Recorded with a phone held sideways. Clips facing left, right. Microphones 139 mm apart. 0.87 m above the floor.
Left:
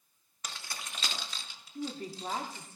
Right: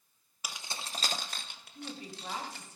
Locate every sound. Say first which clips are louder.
0.4 s keys jangling: right 1 dB; 10° right (ahead or behind), 0.6 m; by 2.6 s 80° right, 1.4 m
1.8 s a woman speaking: left 6 dB; 55° left (ahead or behind), 1.6 m